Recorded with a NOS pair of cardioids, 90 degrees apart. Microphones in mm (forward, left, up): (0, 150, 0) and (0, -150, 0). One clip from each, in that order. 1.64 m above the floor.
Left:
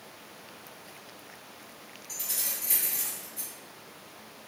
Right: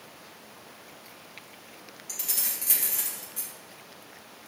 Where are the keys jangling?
70° right, 1.7 m.